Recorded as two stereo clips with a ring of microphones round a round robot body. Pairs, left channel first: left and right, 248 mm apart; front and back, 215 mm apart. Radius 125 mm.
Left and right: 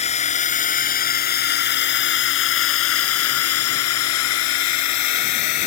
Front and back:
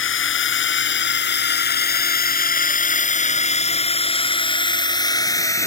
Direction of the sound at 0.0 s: 25° left.